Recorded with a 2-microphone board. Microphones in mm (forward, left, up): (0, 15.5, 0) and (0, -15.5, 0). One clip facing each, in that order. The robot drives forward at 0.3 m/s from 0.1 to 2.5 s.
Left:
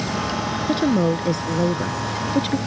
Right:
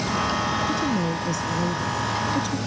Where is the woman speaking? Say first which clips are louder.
Left 5 dB; 50° left (ahead or behind).